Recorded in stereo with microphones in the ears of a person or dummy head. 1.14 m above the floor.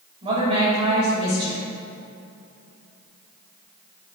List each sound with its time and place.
0.2 s a woman speaking: 25° right (ahead or behind), 2.5 m